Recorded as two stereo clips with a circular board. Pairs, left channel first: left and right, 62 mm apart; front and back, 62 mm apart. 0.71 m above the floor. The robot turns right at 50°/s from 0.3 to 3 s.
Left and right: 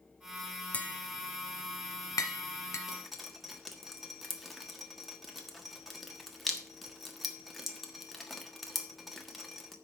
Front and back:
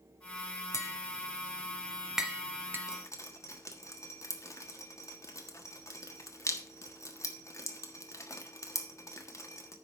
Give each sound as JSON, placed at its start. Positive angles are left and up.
{"t": 0.7, "sound": "tapping", "azimuth_deg": 25, "distance_m": 1.3}
{"t": 2.9, "sound": "dripping", "azimuth_deg": -5, "distance_m": 1.4}